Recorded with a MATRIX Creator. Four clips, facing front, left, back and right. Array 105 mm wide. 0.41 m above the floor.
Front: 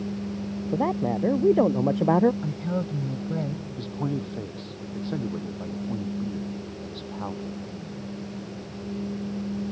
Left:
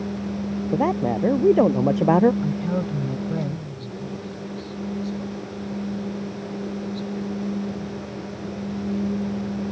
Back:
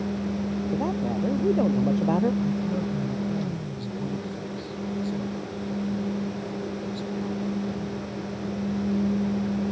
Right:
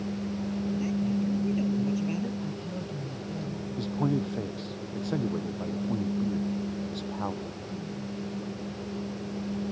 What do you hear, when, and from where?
0.7 s a man speaking: 70° left
2.4 s a woman speaking: 60° left
3.8 s a man speaking: 55° right